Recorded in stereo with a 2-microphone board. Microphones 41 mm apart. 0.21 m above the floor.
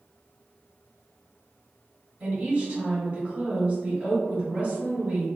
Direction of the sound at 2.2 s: 25° right (ahead or behind).